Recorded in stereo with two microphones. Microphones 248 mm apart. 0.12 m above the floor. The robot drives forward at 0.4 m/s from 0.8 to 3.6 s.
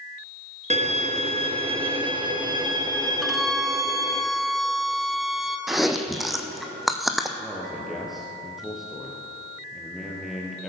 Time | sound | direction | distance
0.7 | a violin | 30° right (ahead or behind) | 0.7 m
3.2 | a violin | centre (ahead or behind) | 0.8 m
5.7 | chewing | centre (ahead or behind) | 1.0 m
7.4 | a man speaking | centre (ahead or behind) | 2 m